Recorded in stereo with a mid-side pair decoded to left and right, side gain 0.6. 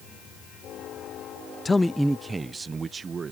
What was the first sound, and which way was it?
A man speaking, 25° left.